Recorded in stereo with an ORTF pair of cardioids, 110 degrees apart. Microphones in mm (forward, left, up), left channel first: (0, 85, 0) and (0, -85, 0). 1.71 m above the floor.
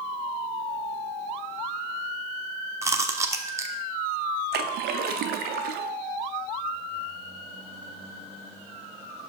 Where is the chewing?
15° right, 0.8 m.